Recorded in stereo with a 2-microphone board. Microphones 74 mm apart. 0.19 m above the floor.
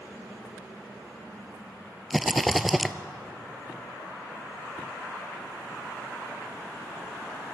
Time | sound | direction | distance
2.1 | a rattle | centre (ahead or behind) | 0.9 m